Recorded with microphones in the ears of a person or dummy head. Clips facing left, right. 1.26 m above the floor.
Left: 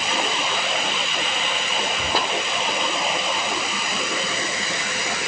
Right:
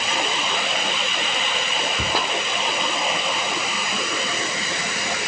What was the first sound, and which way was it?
A cupboard door, 65° right (ahead or behind).